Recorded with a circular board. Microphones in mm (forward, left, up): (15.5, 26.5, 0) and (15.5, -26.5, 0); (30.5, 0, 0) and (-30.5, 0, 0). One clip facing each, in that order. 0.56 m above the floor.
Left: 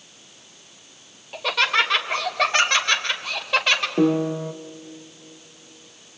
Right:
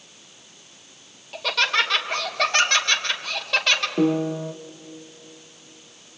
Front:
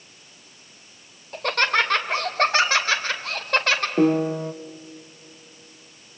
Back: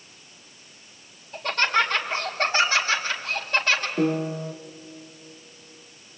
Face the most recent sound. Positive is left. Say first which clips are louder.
# left 3 dB, front 5 dB
turn(degrees=20)